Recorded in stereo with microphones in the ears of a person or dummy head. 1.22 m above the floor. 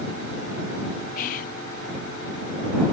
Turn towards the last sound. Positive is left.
turn(degrees=45)  # may be behind; listen again after turning